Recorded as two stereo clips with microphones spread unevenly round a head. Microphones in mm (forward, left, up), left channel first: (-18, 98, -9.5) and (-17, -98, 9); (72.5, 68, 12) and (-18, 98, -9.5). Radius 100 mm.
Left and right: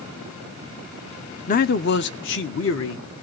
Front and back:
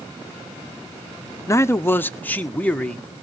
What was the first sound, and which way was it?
A man speaking, 35° left.